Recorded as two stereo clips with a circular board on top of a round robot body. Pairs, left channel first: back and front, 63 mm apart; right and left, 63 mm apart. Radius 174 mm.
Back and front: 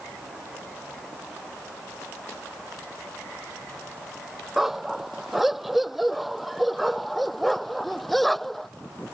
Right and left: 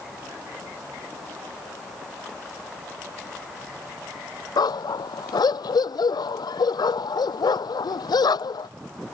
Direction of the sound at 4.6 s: 85° right.